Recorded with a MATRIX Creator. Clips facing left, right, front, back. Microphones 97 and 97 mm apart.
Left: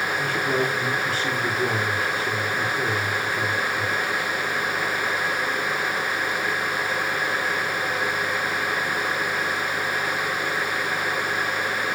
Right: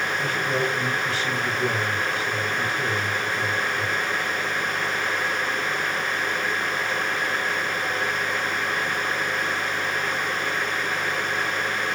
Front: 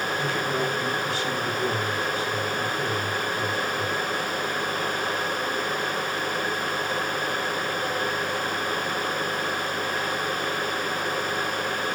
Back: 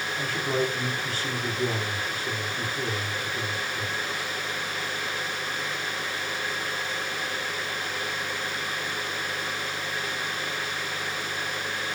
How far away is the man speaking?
About 3.5 m.